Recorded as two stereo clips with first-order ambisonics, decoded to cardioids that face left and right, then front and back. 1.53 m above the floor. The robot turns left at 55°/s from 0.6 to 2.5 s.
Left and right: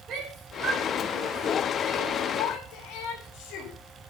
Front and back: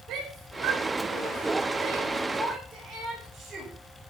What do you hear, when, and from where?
0.1 s a shout: 140° right, 6 m; by 3.7 s 115° left, 6 m